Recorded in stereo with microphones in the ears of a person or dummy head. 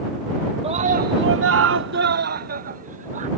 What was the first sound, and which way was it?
A scream, 25° right (ahead or behind).